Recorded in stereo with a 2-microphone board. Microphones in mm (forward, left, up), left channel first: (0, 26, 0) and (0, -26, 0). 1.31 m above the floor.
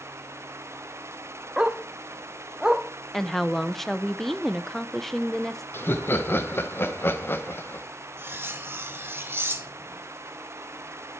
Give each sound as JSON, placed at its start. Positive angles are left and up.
{"t": 1.6, "sound": "a dog barking", "side_deg": -15, "distance_m": 0.9}
{"t": 3.1, "sound": "a woman speaking", "side_deg": 5, "distance_m": 0.7}
{"t": 5.7, "sound": "laughter", "side_deg": 45, "distance_m": 1.0}
{"t": 8.2, "sound": "cutlery clinking", "side_deg": -45, "distance_m": 1.0}